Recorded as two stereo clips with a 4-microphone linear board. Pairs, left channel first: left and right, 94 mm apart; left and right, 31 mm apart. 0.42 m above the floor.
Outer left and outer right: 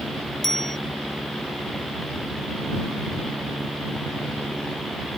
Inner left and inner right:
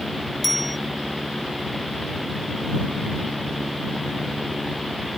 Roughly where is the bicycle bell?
Centre.